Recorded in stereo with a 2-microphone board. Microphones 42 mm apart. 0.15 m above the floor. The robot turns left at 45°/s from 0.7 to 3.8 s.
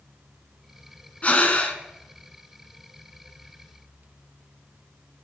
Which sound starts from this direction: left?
Breathing, at 1.2 s.